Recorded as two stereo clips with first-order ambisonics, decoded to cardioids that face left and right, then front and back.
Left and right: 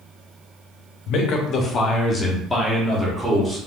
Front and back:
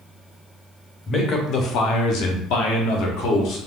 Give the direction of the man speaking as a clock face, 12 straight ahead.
10 o'clock.